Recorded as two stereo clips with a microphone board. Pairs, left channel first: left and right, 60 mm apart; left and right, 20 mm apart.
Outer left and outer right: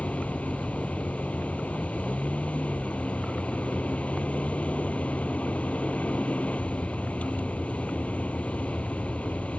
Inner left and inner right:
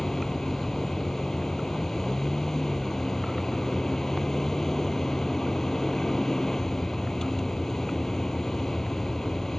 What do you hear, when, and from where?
0.0 s a vehicle: 25° left (ahead or behind)